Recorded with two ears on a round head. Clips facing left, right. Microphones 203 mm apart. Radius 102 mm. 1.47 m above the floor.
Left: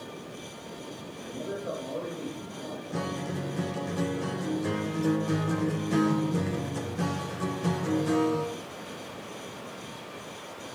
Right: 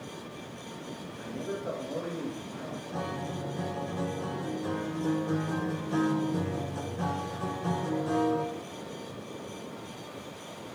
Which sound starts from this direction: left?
A guitar, at 2.9 s.